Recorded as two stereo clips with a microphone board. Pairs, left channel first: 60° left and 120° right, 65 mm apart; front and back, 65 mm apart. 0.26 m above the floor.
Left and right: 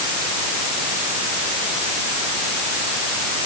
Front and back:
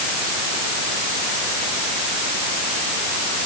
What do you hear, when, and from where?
Only background noise.